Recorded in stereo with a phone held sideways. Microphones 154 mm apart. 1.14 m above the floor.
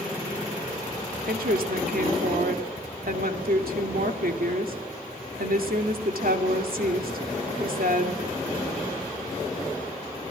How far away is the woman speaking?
About 2.5 m.